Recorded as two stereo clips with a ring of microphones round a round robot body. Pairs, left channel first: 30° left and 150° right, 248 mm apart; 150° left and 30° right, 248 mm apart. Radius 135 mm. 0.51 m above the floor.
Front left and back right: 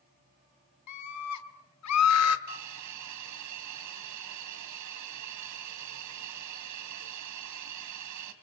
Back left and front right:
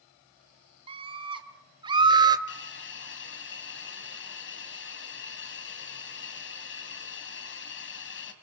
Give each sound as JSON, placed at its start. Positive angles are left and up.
{"t": 0.9, "sound": "a scream", "azimuth_deg": 40, "distance_m": 3.0}
{"t": 2.5, "sound": "a hiss", "azimuth_deg": -165, "distance_m": 2.5}